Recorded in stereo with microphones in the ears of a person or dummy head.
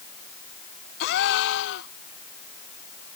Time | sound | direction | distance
1.0 | a gasp | 60° left (ahead or behind) | ?